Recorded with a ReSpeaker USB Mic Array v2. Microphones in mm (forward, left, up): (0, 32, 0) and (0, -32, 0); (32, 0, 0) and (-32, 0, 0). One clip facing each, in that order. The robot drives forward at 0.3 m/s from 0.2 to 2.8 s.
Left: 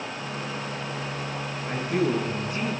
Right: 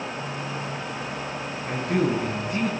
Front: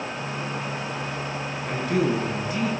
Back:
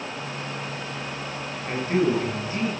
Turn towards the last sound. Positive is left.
turn(degrees=-120)